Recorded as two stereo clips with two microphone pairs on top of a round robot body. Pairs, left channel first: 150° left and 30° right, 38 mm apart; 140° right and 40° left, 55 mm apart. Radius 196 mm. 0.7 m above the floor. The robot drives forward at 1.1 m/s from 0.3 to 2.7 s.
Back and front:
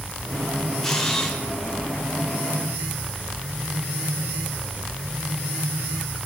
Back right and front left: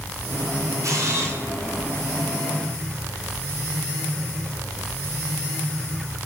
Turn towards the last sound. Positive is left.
turn(degrees=100)